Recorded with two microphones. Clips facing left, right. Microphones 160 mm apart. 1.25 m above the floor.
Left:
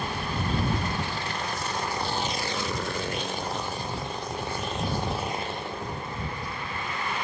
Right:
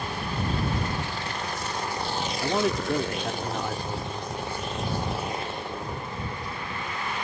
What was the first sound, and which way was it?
A man speaking, 75° right (ahead or behind).